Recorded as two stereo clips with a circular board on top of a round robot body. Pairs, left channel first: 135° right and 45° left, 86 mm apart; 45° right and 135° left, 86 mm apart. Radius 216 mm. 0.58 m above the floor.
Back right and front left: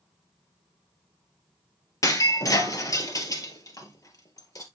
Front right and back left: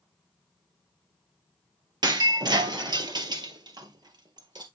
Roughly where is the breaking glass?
Behind.